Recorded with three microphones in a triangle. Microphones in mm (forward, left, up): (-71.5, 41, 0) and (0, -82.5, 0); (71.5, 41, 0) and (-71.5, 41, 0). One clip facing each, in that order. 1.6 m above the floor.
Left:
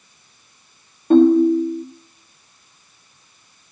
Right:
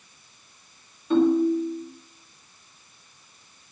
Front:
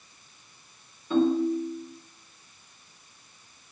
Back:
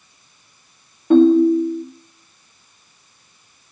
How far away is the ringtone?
About 2.5 m.